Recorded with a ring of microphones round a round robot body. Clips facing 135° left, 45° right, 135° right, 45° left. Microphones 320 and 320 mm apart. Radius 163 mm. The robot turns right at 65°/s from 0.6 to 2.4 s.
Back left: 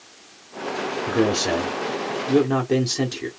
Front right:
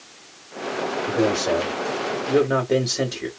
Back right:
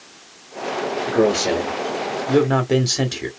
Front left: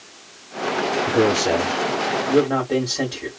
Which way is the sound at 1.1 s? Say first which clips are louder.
Back left 1 dB, back right 1 dB; 125° left.